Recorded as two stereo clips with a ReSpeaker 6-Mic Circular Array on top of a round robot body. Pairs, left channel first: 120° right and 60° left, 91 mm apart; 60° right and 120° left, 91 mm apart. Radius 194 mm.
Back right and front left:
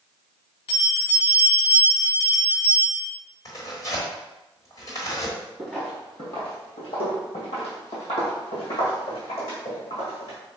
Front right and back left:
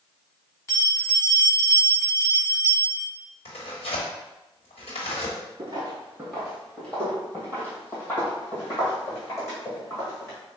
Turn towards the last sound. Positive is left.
turn(degrees=-120)